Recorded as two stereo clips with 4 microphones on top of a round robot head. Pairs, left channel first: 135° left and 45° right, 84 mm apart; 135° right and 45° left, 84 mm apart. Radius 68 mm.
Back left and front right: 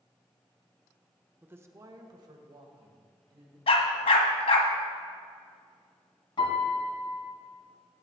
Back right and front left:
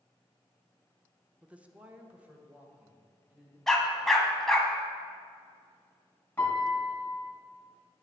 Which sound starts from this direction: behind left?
A dog barking, at 3.7 s.